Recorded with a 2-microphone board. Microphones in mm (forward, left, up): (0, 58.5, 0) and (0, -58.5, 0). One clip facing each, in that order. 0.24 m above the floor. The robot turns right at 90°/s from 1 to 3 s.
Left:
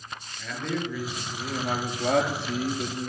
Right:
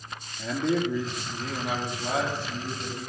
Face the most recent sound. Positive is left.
turn(degrees=150)